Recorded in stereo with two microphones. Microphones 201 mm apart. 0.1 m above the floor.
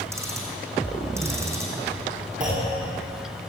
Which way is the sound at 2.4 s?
40° right (ahead or behind).